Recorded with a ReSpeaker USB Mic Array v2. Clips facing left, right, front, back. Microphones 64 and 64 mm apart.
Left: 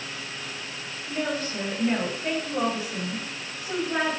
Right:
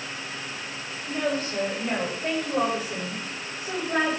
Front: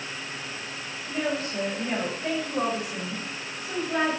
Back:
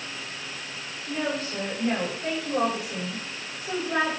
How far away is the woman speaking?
About 5.5 m.